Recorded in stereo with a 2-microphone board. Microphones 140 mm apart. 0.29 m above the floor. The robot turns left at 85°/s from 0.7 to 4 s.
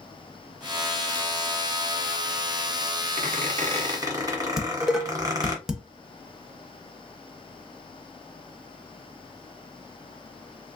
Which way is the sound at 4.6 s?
5° right (ahead or behind).